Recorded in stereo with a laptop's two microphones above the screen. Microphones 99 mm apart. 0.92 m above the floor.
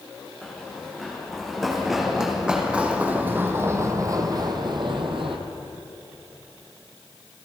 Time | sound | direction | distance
0.4 | running footsteps | 5° left (ahead or behind) | 4.5 m